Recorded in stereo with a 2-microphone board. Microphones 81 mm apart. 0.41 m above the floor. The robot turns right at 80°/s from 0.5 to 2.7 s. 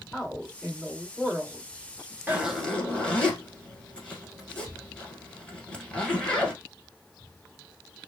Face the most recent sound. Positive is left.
turn(degrees=10)  # may be behind; listen again after turning